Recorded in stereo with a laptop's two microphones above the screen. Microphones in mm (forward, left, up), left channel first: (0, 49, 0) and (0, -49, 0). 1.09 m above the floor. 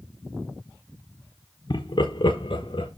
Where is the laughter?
50° left (ahead or behind), 0.9 m; by 2.9 s 55° left (ahead or behind), 1.5 m.